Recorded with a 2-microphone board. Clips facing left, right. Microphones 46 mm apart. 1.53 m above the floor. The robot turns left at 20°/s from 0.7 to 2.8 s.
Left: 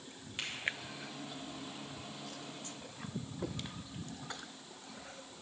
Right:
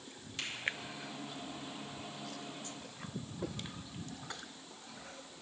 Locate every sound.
0.4 s a finger snap: 25° left (ahead or behind), 2.5 m